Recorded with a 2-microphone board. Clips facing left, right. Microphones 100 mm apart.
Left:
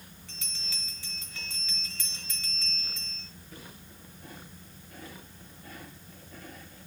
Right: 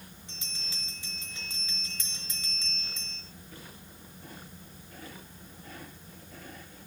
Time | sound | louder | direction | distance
0.3 | a bell | left 1 dB | 20° right (ahead or behind) | 3 m